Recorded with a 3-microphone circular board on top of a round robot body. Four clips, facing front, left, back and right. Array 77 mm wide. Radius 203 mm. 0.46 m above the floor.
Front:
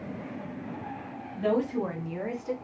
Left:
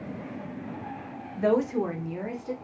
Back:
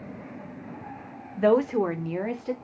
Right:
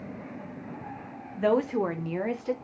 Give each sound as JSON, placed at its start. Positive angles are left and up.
{"t": 1.4, "sound": "a woman speaking", "azimuth_deg": -170, "distance_m": 1.5}